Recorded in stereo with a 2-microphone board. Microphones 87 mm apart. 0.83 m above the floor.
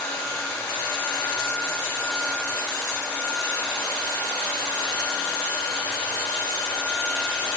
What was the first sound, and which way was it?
Only background noise.